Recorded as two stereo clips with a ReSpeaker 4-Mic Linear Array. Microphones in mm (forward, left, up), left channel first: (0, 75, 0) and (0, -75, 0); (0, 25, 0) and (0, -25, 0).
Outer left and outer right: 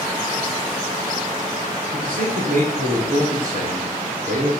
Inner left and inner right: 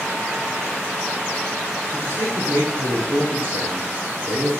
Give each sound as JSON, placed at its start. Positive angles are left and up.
{"t": 1.9, "sound": "a man speaking", "side_deg": -60, "distance_m": 6.5}